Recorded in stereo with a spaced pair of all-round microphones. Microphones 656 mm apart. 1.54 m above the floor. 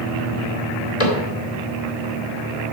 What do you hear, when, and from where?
1.0 s a cupboard door: 60° left (ahead or behind), 2.5 m